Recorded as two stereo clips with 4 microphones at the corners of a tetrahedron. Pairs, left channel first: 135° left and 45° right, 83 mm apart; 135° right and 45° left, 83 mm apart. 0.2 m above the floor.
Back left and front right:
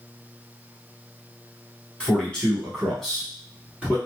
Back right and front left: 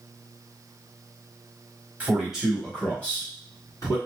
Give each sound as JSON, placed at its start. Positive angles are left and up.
{"t": 2.0, "sound": "a man speaking", "azimuth_deg": 80, "distance_m": 1.2}